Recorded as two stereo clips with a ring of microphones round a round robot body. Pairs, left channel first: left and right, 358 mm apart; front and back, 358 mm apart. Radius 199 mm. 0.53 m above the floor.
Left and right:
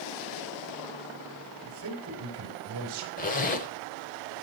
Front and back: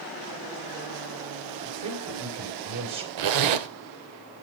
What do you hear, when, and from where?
1.6 s a man speaking: 145° right, 3.5 m
3.2 s a zipper: 160° left, 0.9 m